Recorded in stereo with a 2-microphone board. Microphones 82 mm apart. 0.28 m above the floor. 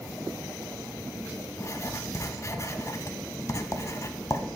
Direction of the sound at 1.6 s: 40° left (ahead or behind).